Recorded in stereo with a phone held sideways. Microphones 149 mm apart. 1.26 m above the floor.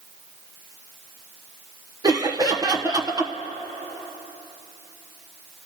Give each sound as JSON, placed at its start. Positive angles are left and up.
{"t": 2.0, "sound": "laughter", "side_deg": -25, "distance_m": 0.9}